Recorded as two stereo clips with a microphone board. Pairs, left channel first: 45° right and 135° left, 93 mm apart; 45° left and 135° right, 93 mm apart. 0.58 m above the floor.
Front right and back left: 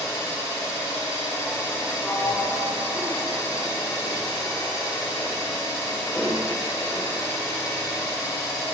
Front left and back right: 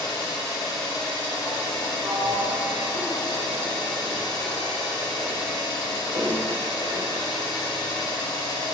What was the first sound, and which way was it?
An engine running, 5° left.